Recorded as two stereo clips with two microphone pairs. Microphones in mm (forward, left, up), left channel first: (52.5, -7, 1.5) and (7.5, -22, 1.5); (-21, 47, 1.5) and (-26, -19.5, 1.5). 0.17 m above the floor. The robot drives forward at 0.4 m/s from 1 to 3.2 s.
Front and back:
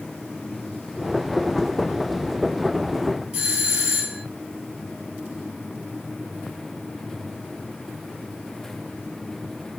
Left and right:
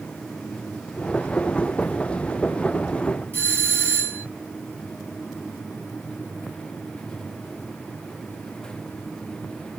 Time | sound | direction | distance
3.3 | a doorbell | 115° right | 2.5 m